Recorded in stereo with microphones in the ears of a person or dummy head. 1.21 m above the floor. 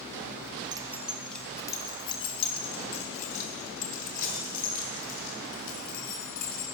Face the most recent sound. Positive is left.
turn(degrees=45)  # may be behind; listen again after turning